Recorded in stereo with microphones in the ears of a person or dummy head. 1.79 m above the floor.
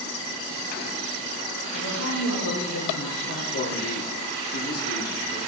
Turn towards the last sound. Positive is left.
turn(degrees=55)  # may be behind; listen again after turning